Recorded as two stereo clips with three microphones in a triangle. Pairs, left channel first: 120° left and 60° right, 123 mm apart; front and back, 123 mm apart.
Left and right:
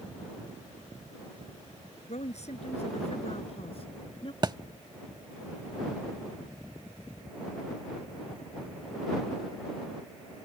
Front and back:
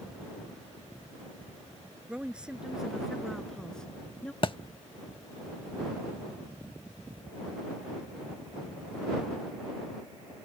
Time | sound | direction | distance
2.1 | a woman speaking | 100° left | ?
4.4 | a thud | 25° right | ?